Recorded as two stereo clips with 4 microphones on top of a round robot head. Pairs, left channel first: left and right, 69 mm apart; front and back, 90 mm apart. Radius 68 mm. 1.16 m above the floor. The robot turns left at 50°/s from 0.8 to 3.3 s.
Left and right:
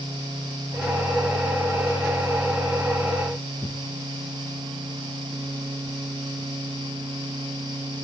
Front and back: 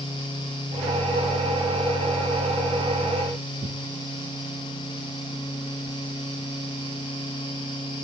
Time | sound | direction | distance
3.6 | tearing paper | 165° left | 0.7 m